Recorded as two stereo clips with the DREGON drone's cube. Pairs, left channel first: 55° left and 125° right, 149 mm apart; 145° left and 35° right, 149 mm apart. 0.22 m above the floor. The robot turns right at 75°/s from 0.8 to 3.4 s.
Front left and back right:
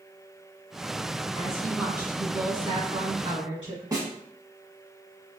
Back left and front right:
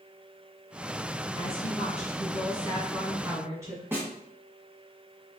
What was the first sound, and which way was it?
A woman speaking, 110° left.